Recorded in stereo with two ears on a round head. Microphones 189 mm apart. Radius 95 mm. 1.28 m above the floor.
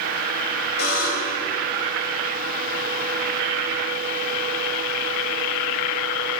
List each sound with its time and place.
0.8 s a buzzer: 50° left (ahead or behind), 6 m